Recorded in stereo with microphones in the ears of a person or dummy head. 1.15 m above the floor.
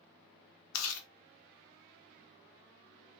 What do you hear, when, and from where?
0.7 s chewing: 75° left (ahead or behind), 0.9 m